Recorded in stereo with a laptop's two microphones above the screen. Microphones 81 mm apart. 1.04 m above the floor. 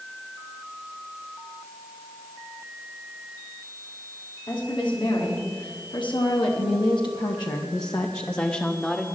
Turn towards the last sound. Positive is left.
turn(degrees=10)  # may be behind; listen again after turning